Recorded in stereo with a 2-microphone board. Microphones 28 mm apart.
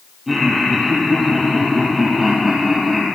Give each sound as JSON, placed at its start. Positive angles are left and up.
{"t": 0.3, "sound": "laughter", "side_deg": -10, "distance_m": 3.0}